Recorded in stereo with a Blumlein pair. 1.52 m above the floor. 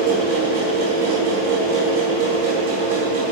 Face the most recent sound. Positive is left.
turn(degrees=-50)